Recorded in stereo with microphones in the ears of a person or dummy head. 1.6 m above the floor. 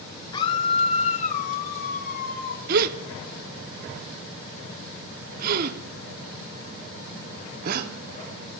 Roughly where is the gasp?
Right.